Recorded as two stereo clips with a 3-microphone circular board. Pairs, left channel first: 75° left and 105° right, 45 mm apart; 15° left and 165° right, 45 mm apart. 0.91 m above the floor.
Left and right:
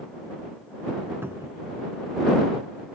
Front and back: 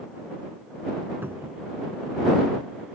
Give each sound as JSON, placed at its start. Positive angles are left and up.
{"t": 1.2, "sound": "a cupboard door", "azimuth_deg": -130}